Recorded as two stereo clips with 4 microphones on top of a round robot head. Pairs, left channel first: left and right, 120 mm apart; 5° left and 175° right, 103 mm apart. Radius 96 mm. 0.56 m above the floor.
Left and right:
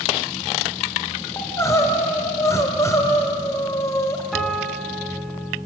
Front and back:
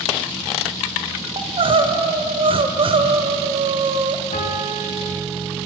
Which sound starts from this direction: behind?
Crying, at 1.4 s.